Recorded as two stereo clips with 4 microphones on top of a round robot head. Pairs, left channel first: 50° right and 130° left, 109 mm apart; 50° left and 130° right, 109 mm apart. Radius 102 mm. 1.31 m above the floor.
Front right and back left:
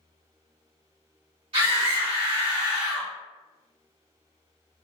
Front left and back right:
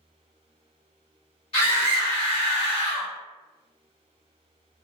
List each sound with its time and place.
1.5 s a scream: 90° left, 1.4 m; by 3.1 s 75° left, 0.5 m